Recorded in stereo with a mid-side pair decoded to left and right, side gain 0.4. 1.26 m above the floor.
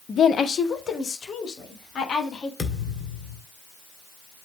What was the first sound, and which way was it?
A woman speaking, 55° left.